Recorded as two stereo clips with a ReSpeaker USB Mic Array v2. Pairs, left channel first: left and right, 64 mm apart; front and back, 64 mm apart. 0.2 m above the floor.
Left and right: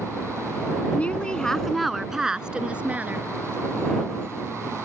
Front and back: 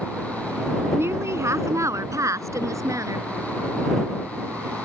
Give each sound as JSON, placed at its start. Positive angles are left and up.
{"t": 0.9, "sound": "a woman speaking", "azimuth_deg": 150}